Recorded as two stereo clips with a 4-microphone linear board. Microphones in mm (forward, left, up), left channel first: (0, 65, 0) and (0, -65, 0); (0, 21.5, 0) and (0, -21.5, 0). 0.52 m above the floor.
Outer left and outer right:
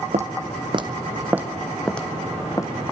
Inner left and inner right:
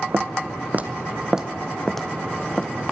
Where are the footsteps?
60° right (ahead or behind), 1.6 m; by 2.9 s 25° left (ahead or behind), 2.5 m.